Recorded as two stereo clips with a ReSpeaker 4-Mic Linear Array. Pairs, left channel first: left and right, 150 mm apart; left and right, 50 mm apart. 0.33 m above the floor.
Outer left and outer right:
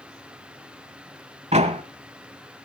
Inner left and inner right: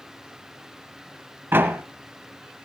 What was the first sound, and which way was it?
A door slam, 45° right (ahead or behind).